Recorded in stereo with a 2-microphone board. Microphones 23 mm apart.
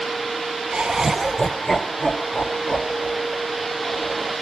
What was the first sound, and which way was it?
Laughter, 45° right (ahead or behind).